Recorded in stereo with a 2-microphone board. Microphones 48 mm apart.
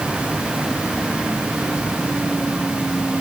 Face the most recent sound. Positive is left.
No sound to turn to.